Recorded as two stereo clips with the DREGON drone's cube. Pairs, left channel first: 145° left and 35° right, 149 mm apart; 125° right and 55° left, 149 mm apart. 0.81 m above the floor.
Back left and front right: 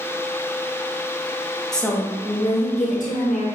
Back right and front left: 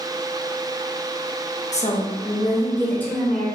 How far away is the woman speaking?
About 0.7 m.